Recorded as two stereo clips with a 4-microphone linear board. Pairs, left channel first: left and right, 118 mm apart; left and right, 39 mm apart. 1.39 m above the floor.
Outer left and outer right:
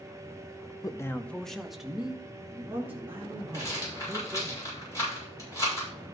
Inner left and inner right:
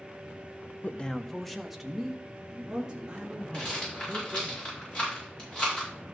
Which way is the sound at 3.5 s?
25° left (ahead or behind).